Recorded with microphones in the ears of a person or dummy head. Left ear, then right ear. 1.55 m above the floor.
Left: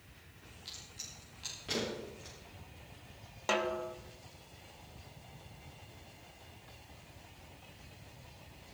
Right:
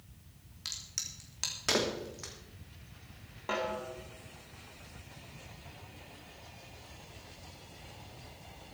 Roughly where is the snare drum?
Left.